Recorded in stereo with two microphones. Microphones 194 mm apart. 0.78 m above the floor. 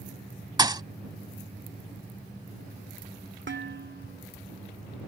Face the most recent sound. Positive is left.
turn(degrees=-75)  # may be behind; listen again after turning